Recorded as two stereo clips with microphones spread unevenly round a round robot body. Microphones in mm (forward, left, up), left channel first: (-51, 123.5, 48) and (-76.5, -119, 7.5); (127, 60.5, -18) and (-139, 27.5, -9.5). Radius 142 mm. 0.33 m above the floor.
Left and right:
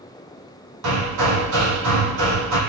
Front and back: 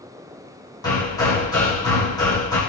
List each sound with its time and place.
0.8 s hammering: 70° right, 5 m